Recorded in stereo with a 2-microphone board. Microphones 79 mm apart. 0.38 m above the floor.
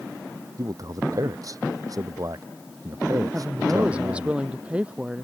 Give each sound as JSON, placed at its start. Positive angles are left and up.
{"t": 0.6, "sound": "a man speaking", "side_deg": -50}
{"t": 3.3, "sound": "a woman speaking", "side_deg": -15}